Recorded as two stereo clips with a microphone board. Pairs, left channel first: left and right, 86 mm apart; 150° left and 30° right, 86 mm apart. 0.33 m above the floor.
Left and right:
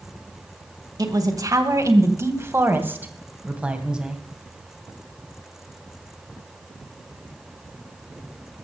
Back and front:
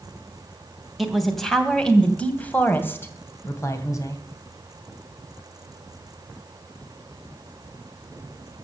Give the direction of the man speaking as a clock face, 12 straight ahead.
4 o'clock.